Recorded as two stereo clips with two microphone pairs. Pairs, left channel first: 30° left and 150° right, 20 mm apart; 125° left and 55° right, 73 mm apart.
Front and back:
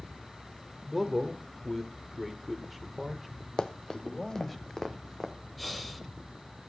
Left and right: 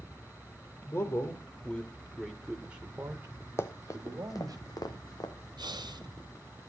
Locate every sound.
0.8 s a man speaking: 130° left, 1.3 m; by 4.6 s 45° right, 1.8 m
3.6 s running footsteps: 75° left, 0.8 m; by 5.3 s 100° left, 1.6 m
5.6 s breathing: 50° right, 1.4 m